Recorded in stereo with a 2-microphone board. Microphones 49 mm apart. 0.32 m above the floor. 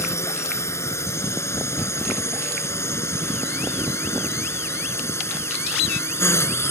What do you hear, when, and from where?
0.0 s a drone: 70° left (ahead or behind); by 6.7 s 60° left (ahead or behind)